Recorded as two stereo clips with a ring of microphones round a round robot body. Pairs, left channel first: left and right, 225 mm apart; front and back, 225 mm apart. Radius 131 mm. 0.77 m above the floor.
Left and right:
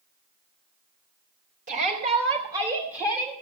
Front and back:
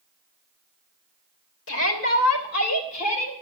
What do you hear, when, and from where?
1.7 s a shout: 30° right, 3.5 m; by 3.3 s straight ahead, 4 m